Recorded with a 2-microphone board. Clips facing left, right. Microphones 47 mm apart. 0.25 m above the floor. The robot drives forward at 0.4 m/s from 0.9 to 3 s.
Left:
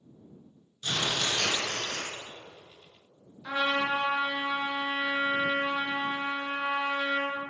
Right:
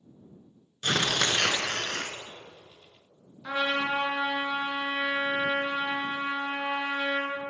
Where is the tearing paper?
60° right (ahead or behind), 0.6 m; by 2.1 s 70° right (ahead or behind), 0.6 m.